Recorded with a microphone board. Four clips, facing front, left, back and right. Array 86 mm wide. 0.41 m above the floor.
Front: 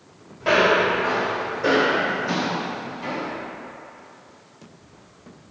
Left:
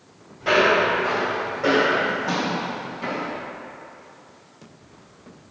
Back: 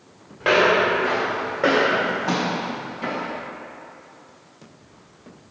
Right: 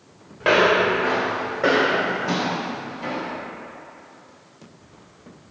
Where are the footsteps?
125° right, 1.6 m; by 3.3 s 140° left, 1.0 m.